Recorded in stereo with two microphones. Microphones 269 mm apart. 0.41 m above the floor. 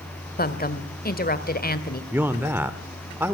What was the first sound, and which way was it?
A woman speaking, 35° left (ahead or behind).